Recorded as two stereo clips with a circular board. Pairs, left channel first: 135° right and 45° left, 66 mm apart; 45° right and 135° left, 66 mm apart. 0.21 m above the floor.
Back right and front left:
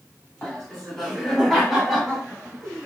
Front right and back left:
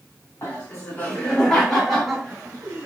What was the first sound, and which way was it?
Laughter, 55° right.